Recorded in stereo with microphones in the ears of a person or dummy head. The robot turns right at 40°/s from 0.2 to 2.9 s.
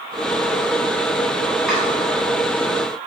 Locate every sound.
1.7 s chopping: 5° right (ahead or behind), 1.2 m; by 1.8 s 10° right (ahead or behind), 1.2 m